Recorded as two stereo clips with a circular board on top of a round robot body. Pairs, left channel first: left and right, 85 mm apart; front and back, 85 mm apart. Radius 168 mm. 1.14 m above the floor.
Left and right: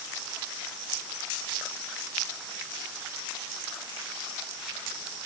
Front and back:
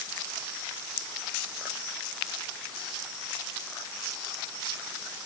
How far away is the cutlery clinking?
No cutlery clinking in this recording.